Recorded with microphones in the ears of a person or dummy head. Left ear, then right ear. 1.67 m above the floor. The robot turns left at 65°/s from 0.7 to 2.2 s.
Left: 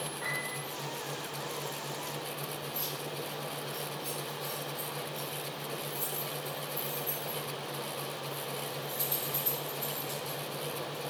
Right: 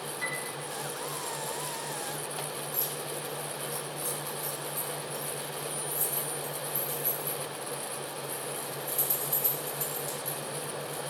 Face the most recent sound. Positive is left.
turn(degrees=-55)  # may be behind; listen again after turning